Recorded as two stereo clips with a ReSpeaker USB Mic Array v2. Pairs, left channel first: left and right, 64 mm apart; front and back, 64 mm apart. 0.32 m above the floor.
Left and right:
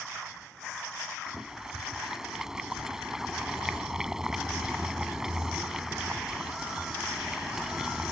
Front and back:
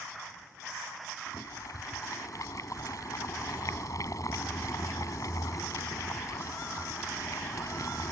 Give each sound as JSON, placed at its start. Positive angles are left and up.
{"t": 1.3, "sound": "boiling", "azimuth_deg": -10}